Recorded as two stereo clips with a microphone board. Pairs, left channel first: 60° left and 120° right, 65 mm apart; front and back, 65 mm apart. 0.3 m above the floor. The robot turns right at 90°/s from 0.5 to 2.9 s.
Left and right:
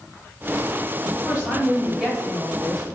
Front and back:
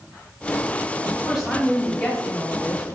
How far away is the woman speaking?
About 1.4 m.